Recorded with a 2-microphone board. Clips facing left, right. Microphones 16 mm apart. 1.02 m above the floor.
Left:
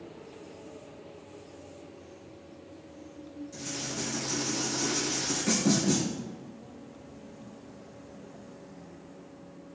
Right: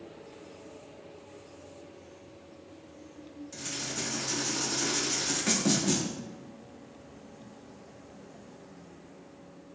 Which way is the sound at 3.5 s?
35° right (ahead or behind).